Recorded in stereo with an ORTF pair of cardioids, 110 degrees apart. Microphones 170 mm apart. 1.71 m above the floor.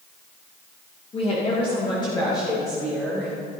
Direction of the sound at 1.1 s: 35° left.